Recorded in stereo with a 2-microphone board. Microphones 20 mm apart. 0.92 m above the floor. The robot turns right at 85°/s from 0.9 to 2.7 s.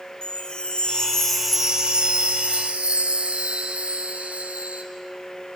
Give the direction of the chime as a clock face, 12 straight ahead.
8 o'clock.